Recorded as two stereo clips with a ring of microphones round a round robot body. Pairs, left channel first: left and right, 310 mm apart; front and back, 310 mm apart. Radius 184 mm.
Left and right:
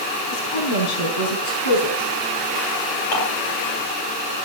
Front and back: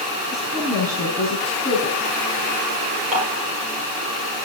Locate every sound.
0.3 s a woman speaking: 100° left, 5 m
3.1 s dishes clattering: 105° left, 9 m